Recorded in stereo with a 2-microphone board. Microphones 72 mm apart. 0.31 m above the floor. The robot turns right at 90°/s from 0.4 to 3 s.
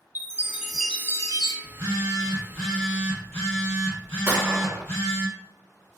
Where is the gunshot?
25° right (ahead or behind), 1.0 m.